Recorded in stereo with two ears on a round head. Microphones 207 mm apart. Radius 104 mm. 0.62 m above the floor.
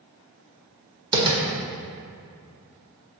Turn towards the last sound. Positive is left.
turn(degrees=-20)  # may be behind; listen again after turning